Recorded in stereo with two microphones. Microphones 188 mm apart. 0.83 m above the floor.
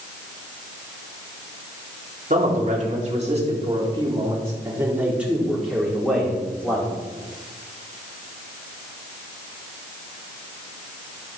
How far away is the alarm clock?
I don't hear an alarm clock.